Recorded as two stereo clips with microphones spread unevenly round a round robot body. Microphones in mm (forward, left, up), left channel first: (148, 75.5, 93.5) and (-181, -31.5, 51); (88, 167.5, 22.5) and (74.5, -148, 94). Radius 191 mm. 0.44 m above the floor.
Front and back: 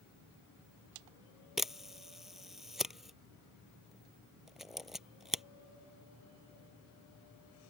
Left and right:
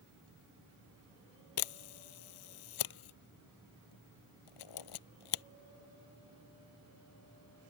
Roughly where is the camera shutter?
Left.